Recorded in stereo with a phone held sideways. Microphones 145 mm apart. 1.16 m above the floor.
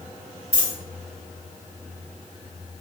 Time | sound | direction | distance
0.5 | a dropped coin | 20° left (ahead or behind) | 1.3 m